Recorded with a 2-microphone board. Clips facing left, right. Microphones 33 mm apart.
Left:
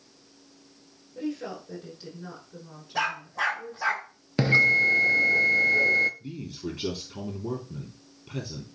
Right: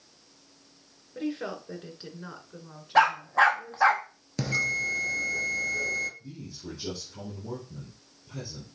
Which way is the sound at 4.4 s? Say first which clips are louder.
Left 8 dB; 40° left (ahead or behind).